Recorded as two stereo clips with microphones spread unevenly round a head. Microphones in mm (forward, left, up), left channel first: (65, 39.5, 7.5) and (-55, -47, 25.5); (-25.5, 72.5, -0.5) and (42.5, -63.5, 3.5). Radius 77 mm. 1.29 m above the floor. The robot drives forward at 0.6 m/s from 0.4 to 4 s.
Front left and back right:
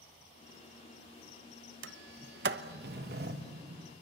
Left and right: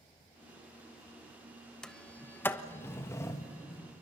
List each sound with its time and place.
1.8 s a sliding door: 160° right, 0.6 m; by 3.9 s 175° right, 1.8 m